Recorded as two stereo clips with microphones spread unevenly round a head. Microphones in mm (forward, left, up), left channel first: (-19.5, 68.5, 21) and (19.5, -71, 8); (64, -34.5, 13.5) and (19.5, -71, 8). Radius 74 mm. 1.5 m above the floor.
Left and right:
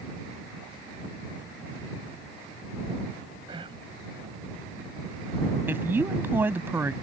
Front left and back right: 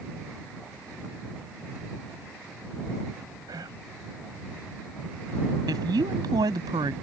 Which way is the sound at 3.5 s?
135° right.